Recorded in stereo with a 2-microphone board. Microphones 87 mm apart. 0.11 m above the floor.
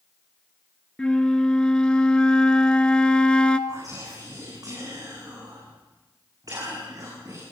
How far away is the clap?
I don't hear a clap.